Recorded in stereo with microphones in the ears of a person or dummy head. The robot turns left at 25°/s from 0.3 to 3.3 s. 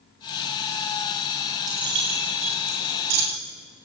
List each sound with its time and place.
1.7 s keys jangling: 20° right (ahead or behind), 4.5 m; by 3.2 s 60° right (ahead or behind), 4.5 m